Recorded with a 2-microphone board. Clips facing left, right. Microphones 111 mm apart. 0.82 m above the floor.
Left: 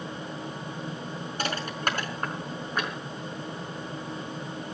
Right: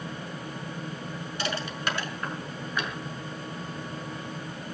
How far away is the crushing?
About 5.5 m.